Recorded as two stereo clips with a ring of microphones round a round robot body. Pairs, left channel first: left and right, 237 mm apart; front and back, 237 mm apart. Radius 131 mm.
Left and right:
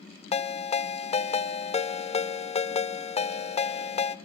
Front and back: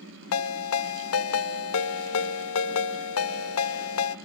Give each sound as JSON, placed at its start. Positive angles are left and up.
{"t": 0.3, "sound": "a ringtone", "azimuth_deg": 25, "distance_m": 1.1}